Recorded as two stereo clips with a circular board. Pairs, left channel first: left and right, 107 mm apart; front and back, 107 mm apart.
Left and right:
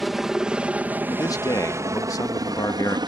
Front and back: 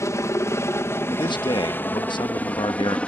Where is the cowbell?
No cowbell in this recording.